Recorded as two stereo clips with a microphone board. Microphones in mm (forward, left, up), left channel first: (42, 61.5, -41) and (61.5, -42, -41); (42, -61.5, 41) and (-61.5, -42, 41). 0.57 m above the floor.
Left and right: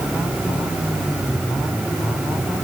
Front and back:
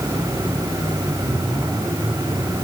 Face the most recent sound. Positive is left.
No sound to turn to.